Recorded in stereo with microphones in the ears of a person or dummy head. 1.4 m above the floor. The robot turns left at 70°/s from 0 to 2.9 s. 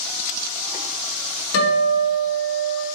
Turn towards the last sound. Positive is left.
turn(degrees=-10)